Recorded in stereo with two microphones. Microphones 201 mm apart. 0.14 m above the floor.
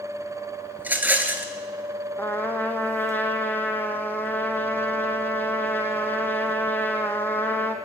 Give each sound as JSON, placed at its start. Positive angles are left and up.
{"t": 0.8, "sound": "a rattle", "side_deg": -10, "distance_m": 0.9}
{"t": 2.2, "sound": "a trumpet", "side_deg": 10, "distance_m": 0.9}